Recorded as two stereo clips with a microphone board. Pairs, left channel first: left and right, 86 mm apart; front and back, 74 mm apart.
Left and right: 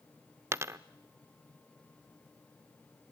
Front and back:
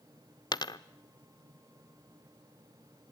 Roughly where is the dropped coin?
Ahead right.